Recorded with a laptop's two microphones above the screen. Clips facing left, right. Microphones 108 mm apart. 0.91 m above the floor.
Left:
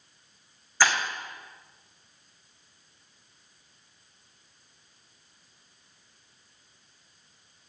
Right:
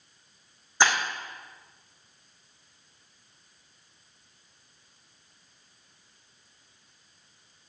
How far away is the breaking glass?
About 4 m.